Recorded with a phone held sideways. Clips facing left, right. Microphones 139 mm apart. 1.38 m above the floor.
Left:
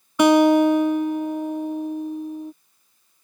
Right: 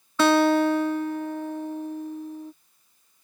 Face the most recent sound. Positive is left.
turn(degrees=15)  # may be behind; listen again after turning